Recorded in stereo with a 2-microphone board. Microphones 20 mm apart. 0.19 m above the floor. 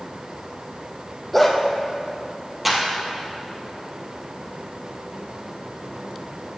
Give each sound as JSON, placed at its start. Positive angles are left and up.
{"t": 1.3, "sound": "a dog barking", "side_deg": 5, "distance_m": 2.0}
{"t": 2.6, "sound": "a clap", "side_deg": -10, "distance_m": 4.0}